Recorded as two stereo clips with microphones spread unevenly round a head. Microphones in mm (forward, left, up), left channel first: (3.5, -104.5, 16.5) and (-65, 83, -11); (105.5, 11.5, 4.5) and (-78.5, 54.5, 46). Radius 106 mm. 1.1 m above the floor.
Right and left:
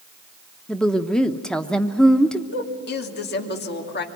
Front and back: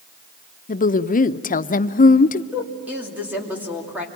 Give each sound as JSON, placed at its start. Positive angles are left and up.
{"t": 0.7, "sound": "a woman speaking", "azimuth_deg": 20, "distance_m": 0.8}
{"t": 2.5, "sound": "a woman speaking", "azimuth_deg": -110, "distance_m": 2.5}